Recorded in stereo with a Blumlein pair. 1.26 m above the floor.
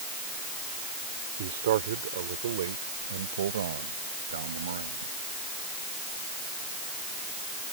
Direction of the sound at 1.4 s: 55° right.